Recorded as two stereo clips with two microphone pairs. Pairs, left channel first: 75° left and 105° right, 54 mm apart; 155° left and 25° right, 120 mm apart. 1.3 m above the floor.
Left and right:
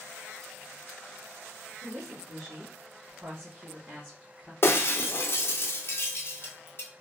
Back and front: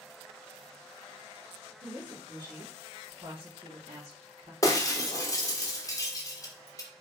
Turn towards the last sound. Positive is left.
turn(degrees=100)